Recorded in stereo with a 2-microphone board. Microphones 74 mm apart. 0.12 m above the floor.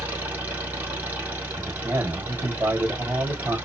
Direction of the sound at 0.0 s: 25° right (ahead or behind).